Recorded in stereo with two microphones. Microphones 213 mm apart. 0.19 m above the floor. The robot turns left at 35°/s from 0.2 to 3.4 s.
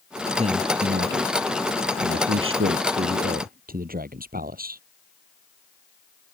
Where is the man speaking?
30° right; by 4.8 s 135° right.